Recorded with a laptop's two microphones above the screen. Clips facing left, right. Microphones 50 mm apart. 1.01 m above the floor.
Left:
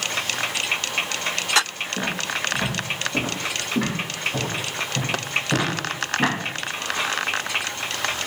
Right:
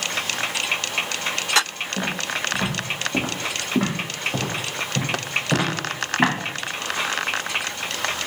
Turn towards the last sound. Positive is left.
turn(degrees=-55)  # may be behind; listen again after turning